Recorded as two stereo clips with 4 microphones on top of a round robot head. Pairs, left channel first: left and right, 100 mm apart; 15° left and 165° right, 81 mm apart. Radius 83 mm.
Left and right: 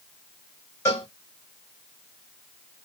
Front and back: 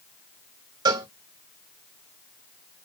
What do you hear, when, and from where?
0.8 s a cowbell: 160° left, 1.1 m